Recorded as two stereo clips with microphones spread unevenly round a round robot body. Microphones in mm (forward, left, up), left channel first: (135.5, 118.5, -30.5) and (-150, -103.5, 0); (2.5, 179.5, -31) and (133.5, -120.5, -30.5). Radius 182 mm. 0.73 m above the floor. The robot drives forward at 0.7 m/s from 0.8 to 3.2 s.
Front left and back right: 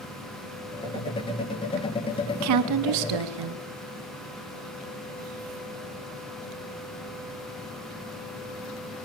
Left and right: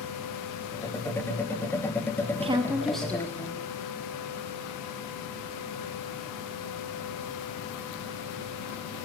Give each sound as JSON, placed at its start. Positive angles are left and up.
{"t": 2.4, "sound": "a woman speaking", "azimuth_deg": -120, "distance_m": 0.5}